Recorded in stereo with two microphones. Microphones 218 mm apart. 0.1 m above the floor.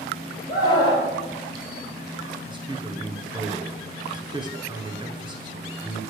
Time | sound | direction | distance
0.5 | a scream | 20° left (ahead or behind) | 3.5 m
2.5 | a man speaking | 20° right (ahead or behind) | 1.1 m